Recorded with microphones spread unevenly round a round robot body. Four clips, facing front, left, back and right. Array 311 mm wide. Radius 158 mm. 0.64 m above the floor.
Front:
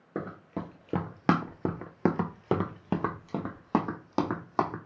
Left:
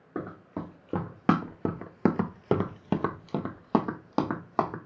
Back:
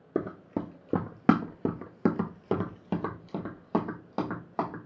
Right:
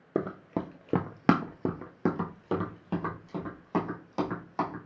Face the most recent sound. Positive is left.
turn(degrees=60)